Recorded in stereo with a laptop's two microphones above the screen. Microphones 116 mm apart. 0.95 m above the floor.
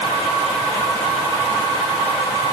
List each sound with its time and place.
Only background noise.